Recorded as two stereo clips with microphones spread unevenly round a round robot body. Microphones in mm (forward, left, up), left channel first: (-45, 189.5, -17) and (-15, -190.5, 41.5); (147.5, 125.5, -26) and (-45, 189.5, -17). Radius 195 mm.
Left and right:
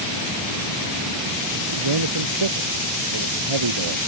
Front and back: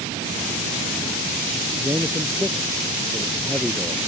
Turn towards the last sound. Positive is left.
turn(degrees=-115)